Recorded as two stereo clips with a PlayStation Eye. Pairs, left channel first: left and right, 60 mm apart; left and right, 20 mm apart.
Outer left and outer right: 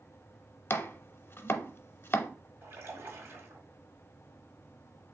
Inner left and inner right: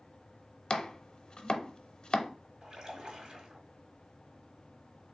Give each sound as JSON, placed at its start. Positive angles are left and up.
{"t": 0.7, "sound": "chopping", "side_deg": 40, "distance_m": 0.5}
{"t": 2.6, "sound": "a splash", "side_deg": -40, "distance_m": 1.7}